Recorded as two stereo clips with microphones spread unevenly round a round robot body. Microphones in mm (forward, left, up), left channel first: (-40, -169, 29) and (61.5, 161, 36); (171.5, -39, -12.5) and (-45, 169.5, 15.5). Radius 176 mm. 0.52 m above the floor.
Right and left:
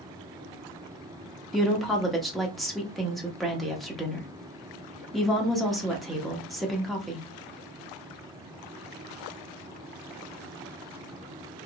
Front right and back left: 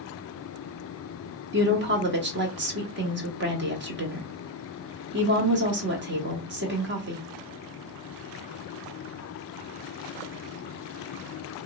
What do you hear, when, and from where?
1.5 s a woman speaking: 165° left, 0.9 m